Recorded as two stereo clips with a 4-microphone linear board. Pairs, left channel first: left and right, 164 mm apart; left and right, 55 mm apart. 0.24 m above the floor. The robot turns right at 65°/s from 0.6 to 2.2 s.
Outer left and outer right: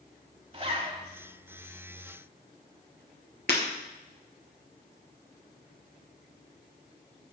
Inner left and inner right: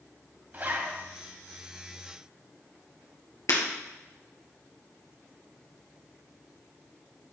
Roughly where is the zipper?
Right.